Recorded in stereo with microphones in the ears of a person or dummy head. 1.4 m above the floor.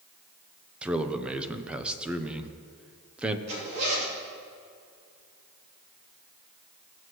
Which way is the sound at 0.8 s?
10° right (ahead or behind).